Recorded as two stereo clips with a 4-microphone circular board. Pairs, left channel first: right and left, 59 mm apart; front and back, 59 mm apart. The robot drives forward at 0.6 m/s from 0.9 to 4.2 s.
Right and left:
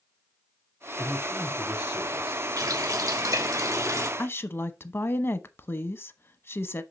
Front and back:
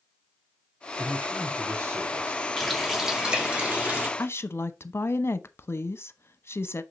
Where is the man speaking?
160° left, 3 m; by 2.4 s 165° left, 3.5 m.